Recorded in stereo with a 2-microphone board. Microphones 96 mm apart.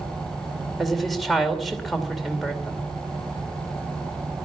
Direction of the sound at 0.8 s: Centre (ahead or behind).